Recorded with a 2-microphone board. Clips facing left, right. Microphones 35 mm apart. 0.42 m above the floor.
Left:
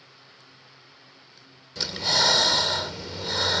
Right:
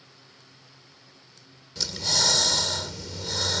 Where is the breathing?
25° left (ahead or behind).